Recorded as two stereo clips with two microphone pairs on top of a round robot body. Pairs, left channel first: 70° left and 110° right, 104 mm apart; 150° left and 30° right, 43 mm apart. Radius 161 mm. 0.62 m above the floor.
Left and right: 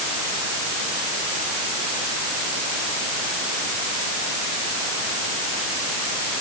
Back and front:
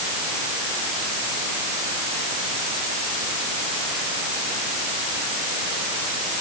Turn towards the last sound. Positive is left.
No sound to turn to.